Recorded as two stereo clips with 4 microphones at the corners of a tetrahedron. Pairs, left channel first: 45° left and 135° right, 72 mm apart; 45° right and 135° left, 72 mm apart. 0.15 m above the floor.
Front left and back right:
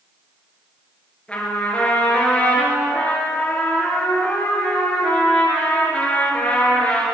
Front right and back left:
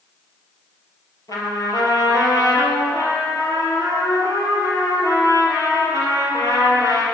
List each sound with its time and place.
1.3 s a trumpet: 30° right, 3.5 m